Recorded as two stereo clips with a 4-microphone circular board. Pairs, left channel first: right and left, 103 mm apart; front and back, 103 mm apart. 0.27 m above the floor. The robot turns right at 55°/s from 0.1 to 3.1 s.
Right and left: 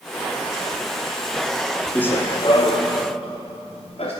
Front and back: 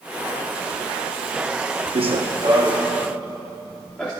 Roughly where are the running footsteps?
Behind.